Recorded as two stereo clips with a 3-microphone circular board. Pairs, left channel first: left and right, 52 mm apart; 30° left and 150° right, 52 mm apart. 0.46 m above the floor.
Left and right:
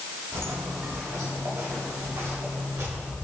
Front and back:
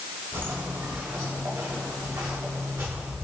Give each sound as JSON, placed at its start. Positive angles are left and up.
{"t": 0.3, "sound": "footsteps", "azimuth_deg": -110, "distance_m": 1.4}